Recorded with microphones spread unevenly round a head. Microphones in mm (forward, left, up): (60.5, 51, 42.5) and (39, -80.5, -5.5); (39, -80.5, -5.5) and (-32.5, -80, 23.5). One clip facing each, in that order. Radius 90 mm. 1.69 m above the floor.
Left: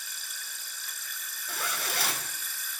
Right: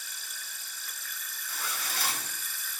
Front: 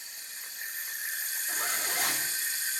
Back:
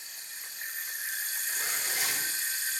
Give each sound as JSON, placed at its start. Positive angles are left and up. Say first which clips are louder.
{"t": 1.5, "sound": "a zipper", "louder": "left 4 dB, front 3 dB", "azimuth_deg": 80, "distance_m": 2.5}